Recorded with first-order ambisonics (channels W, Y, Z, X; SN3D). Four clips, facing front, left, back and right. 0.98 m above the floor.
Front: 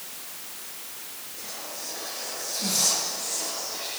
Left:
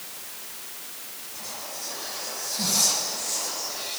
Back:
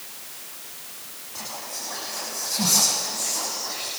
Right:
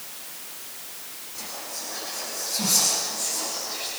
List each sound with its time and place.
1.4 s whispering: 175° right, 7 m